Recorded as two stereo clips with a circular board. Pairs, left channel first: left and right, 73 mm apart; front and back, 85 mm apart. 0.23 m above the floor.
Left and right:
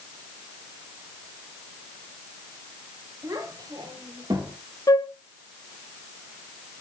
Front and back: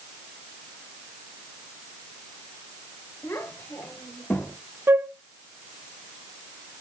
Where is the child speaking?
50° right, 3 m; by 4.5 s 65° right, 3.5 m.